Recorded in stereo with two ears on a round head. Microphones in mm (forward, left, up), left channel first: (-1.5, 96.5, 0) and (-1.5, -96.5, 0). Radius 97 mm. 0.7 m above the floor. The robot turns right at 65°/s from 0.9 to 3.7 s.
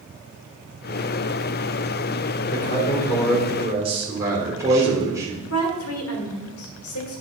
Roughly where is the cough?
No cough in this recording.